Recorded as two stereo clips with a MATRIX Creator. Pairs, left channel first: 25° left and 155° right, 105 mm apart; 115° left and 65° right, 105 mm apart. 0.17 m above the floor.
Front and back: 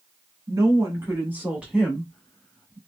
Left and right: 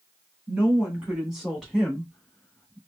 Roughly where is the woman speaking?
Behind right.